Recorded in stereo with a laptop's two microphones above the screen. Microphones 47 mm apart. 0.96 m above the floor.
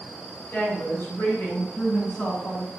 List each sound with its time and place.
0.5 s a woman speaking: 50° left (ahead or behind), 5 m; by 2.7 s 45° left (ahead or behind), 6.5 m